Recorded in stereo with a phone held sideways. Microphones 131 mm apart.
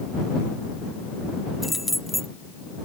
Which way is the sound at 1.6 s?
Centre (ahead or behind).